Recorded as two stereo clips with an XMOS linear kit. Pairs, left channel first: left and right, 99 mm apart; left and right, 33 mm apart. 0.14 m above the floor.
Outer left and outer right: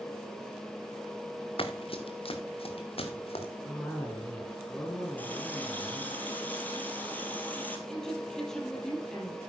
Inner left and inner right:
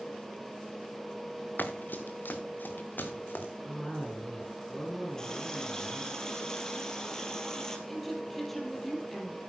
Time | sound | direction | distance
1.6 | running footsteps | 60° left (ahead or behind) | 1.2 m
3.6 | a cough | 10° left (ahead or behind) | 1.7 m
5.2 | a running tap | 20° left (ahead or behind) | 2 m
7.9 | a woman speaking | 5° left (ahead or behind) | 3.5 m